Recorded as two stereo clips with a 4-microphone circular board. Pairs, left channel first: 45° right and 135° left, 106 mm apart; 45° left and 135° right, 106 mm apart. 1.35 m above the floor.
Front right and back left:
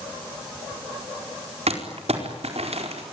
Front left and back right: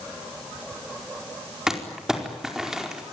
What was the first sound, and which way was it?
Crumpling, 140° left.